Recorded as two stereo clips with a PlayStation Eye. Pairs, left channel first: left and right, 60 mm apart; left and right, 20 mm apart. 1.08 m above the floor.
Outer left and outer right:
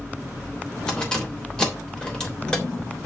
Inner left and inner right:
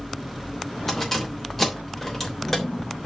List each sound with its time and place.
0.9 s keys jangling: 15° left (ahead or behind), 3 m